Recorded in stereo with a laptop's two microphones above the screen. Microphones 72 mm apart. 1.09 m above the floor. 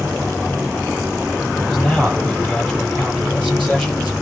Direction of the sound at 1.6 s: 15° left (ahead or behind).